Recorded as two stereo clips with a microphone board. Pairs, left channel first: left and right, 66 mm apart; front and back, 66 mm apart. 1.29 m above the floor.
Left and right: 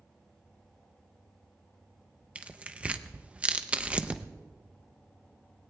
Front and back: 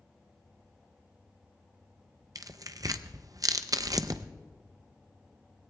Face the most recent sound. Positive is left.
turn(degrees=-160)